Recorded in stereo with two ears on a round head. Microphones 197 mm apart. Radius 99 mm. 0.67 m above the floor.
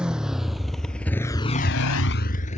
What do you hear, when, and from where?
0.0 s a motorcycle: 5° right (ahead or behind); by 2.6 s 30° left (ahead or behind)